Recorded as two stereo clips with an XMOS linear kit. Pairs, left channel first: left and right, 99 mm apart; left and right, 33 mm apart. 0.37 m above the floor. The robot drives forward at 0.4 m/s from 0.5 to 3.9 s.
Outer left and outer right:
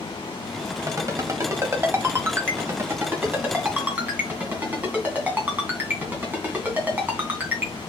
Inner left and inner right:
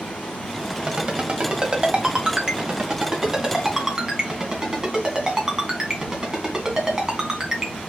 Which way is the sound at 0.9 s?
35° right (ahead or behind).